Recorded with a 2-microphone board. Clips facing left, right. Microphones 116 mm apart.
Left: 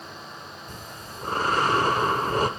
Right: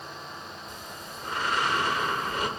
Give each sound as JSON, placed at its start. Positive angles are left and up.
{"t": 0.7, "sound": "breathing", "side_deg": 40, "distance_m": 0.9}